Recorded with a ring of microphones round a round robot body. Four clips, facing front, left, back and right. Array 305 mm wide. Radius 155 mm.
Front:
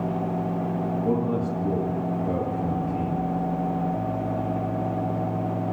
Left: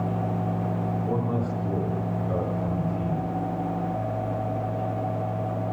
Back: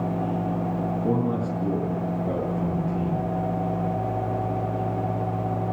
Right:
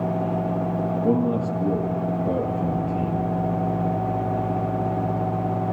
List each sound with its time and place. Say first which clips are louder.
1.0 s a man speaking: right 8 dB, even; 115° right, 9.5 m